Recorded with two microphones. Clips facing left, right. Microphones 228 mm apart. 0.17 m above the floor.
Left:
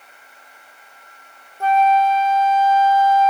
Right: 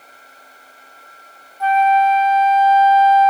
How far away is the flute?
About 1.0 m.